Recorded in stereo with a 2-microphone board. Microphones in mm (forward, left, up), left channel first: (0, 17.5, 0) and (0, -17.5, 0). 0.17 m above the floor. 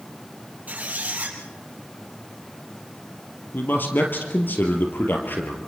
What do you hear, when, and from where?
0.7 s a squeak: 45° right (ahead or behind), 4 m
3.5 s a man speaking: 70° left (ahead or behind), 3 m